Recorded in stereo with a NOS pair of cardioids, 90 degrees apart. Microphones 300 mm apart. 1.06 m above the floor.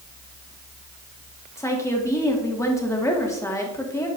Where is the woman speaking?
10° left, 1.9 m.